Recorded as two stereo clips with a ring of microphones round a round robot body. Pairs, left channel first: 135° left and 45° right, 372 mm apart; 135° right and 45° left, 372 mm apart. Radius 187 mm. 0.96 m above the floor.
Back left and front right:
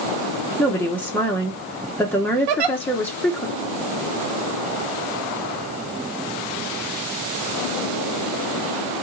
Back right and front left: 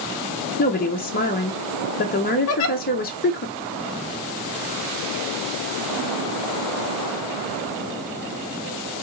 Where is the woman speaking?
145° right, 0.7 m.